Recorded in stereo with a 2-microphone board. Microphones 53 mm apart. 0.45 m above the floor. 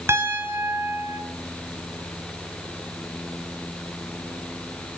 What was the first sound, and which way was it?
A piano, 50° right (ahead or behind).